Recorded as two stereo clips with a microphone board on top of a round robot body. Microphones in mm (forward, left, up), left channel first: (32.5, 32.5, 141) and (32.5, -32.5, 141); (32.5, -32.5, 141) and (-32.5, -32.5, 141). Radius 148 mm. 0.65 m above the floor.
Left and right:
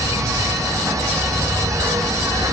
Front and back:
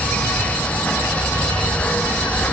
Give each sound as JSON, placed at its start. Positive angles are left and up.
{"t": 0.0, "sound": "an insect", "azimuth_deg": -65, "distance_m": 0.8}